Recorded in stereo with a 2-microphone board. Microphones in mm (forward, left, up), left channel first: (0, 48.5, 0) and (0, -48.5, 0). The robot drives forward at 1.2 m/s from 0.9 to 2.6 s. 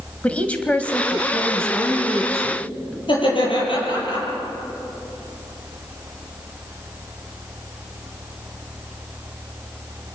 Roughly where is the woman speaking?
Centre.